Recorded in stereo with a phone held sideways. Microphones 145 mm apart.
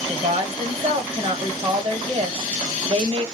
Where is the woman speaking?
40° right (ahead or behind), 1.2 m.